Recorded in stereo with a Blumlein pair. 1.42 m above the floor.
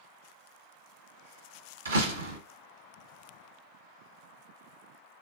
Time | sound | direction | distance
1.9 | a door slam | 70° right | 1.1 m